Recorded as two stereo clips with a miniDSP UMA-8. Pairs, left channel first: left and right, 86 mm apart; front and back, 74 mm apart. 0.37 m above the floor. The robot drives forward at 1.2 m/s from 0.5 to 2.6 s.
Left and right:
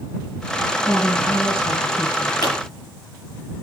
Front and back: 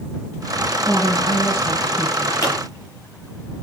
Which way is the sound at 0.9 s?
40° left.